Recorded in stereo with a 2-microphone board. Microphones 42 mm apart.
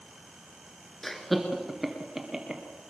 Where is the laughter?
5° left (ahead or behind), 2.5 m; by 2.6 s 15° right (ahead or behind), 3 m.